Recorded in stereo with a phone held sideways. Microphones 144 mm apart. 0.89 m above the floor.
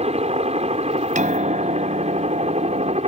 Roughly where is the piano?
Right.